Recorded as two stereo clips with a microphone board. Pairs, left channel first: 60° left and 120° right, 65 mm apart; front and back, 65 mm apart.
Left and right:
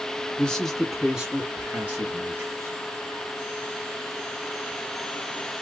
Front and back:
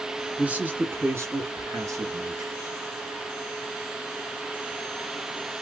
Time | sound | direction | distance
0.4 | a man speaking | 120° left | 1.2 m